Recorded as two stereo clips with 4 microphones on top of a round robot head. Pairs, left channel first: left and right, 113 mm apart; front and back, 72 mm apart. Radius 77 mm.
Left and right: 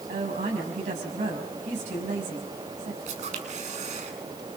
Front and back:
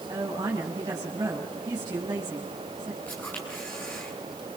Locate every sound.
0.1 s a woman speaking: 120° right, 6.5 m
3.1 s a camera shutter: 75° right, 8 m